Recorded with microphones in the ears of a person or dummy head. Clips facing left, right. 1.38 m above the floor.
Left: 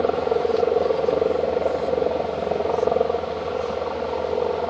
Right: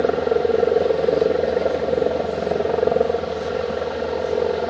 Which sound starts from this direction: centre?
A helicopter, at 0.0 s.